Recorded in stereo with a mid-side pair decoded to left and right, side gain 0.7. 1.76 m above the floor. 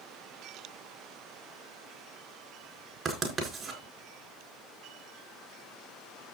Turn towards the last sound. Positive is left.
turn(degrees=-35)